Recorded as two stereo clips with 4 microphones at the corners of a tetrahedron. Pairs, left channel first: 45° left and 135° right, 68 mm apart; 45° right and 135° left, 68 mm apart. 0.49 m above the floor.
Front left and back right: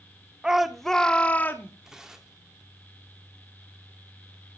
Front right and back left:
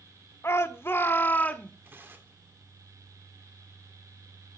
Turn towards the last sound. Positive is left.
turn(degrees=150)